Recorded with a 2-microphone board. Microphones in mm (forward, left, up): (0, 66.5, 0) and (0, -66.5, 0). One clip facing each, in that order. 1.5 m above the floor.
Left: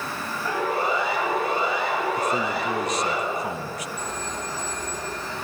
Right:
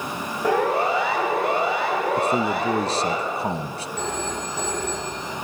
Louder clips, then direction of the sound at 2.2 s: Right 3 dB; 30° right (ahead or behind).